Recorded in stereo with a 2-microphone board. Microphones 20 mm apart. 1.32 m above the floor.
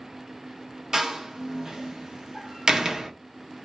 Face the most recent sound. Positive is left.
turn(degrees=-35)  # may be behind; listen again after turning